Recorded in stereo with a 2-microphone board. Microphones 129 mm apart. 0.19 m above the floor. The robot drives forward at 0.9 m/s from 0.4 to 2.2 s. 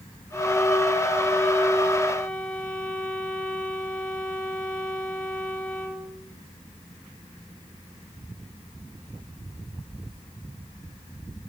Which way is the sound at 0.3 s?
10° left (ahead or behind).